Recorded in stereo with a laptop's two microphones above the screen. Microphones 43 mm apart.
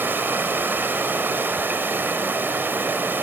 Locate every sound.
0.0 s running water: 50° right (ahead or behind), 2.5 m